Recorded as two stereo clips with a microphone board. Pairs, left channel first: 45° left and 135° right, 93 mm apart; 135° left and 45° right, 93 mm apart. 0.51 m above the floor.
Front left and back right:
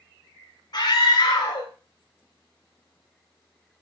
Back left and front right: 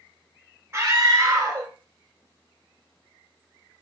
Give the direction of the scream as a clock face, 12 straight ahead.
11 o'clock.